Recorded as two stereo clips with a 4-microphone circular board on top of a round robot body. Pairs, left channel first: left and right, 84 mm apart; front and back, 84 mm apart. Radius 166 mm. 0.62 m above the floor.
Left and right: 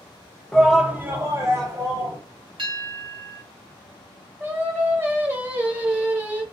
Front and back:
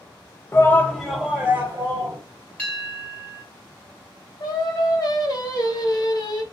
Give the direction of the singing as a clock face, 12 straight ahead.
1 o'clock.